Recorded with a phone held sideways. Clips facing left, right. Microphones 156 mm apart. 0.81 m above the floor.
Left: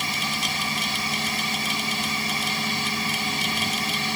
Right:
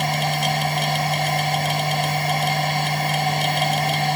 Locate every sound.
0.0 s a machine running: 60° right (ahead or behind)